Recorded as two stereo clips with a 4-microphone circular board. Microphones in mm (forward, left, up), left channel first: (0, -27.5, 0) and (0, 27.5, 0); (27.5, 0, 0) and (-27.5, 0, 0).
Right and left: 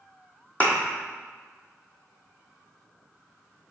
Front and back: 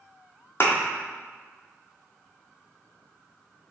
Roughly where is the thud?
Ahead right.